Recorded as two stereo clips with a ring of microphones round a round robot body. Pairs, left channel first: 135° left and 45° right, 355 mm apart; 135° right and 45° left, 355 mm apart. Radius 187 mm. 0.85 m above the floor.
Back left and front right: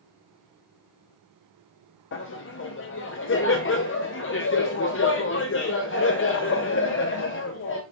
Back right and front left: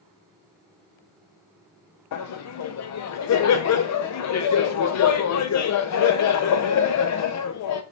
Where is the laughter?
175° right, 0.5 m.